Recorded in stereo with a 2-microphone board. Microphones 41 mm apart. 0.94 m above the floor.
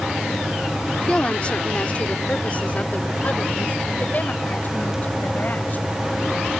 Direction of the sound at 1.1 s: 25° left (ahead or behind).